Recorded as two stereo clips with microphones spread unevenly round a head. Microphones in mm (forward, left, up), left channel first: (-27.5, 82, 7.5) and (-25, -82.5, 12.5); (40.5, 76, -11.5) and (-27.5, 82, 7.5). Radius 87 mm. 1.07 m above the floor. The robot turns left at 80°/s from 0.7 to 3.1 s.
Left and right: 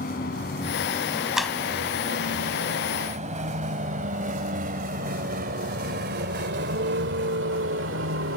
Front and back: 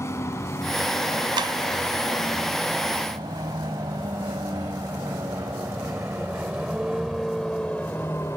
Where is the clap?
175° right; by 1.6 s 170° left.